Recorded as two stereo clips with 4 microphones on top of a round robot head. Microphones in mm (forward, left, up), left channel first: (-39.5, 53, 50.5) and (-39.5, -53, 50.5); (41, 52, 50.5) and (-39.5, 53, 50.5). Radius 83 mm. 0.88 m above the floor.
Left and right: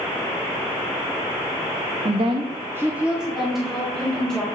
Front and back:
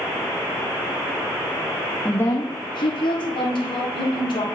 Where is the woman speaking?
80° right, 0.8 m; by 4.5 s 5° left, 3.5 m.